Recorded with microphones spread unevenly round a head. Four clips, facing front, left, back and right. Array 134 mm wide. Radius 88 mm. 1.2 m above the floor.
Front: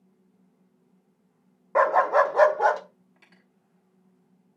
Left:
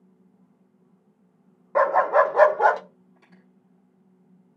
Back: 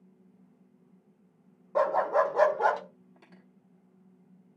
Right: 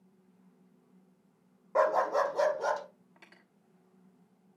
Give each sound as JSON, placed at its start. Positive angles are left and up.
{"t": 1.8, "sound": "a dog barking", "azimuth_deg": 10, "distance_m": 0.8}
{"t": 3.2, "sound": "cutlery clinking", "azimuth_deg": -140, "distance_m": 1.1}